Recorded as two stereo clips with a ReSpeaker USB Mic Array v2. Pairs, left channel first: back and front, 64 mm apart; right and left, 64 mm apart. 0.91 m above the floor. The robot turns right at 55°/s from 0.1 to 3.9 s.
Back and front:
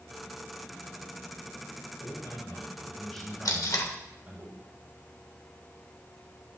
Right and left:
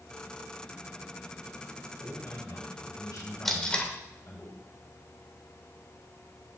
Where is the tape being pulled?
175° right, 1.5 m; by 3.9 s 150° right, 1.5 m.